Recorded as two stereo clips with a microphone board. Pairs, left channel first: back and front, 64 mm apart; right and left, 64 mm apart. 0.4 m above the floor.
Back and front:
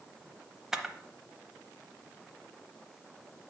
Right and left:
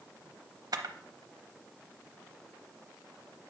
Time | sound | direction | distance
0.7 | a camera shutter | 80° left | 0.7 m